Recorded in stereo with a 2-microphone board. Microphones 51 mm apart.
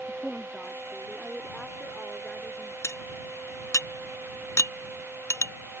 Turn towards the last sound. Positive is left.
turn(degrees=70)  # may be behind; listen again after turning